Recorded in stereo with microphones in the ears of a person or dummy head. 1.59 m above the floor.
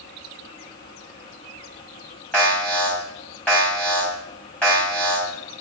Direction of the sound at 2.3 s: 5° left (ahead or behind).